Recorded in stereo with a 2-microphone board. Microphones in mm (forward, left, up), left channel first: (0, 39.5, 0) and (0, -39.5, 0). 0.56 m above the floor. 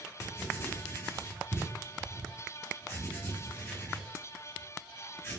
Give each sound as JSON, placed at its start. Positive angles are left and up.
{"t": 0.2, "sound": "writing", "side_deg": 30, "distance_m": 2.0}